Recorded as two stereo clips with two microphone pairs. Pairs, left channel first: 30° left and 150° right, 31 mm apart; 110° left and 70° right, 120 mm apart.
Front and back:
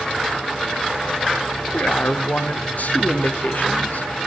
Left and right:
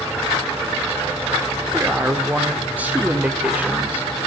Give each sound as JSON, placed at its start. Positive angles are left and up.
{"t": 1.7, "sound": "a man speaking", "azimuth_deg": 5, "distance_m": 1.5}